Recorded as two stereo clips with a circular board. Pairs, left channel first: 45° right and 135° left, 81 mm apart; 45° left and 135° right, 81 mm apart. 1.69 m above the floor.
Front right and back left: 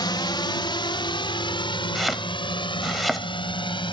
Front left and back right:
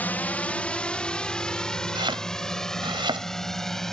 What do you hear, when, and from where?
0.0 s a drone: 20° right; by 3.9 s 40° right
1.9 s chopping: 135° right